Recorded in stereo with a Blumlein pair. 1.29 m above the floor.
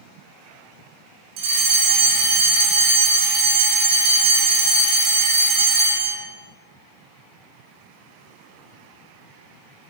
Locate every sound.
1.4 s a fire alarm: 40° right, 5 m